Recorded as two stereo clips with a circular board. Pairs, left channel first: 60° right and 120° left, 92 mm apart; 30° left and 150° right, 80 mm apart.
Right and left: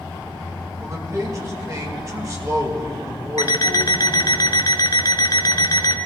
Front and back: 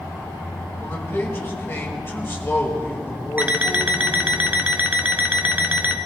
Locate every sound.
0.8 s a man speaking: 85° left, 2 m
3.4 s an alarm clock: 85° right, 0.8 m